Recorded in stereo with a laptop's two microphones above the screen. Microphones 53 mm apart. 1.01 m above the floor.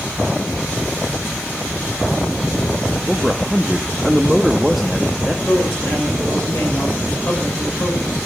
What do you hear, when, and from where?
3.1 s a man speaking: 5° right (ahead or behind), 1.2 m
5.5 s a woman speaking: 40° left (ahead or behind), 5 m